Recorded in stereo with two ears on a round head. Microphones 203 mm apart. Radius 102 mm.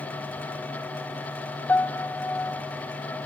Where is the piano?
10° left (ahead or behind).